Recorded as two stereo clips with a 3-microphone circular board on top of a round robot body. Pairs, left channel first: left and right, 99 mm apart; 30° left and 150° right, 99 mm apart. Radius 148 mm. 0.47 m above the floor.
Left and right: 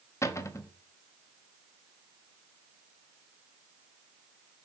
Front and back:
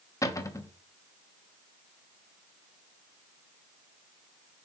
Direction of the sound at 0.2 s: 55° left.